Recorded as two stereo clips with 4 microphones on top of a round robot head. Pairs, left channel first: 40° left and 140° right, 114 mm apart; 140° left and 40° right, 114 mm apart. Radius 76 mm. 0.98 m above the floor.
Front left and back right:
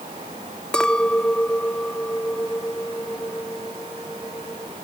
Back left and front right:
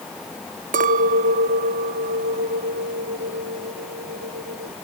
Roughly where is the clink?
Ahead right.